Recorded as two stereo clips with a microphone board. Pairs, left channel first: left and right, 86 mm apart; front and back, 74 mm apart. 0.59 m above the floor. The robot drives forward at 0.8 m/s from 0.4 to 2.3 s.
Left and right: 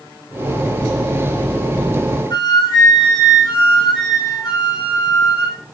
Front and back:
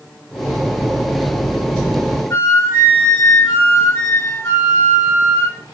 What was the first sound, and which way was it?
A flute, 60° left.